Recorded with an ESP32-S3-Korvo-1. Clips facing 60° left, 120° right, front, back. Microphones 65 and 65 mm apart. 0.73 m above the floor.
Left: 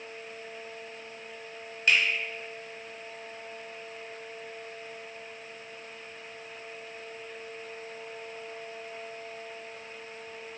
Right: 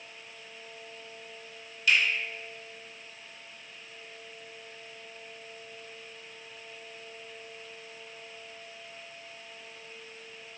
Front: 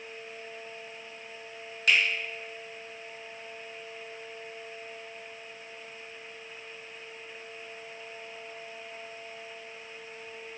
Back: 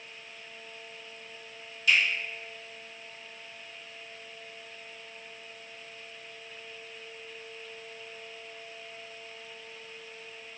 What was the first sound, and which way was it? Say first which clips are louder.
A finger snap: left 1 dB, even; 20° left.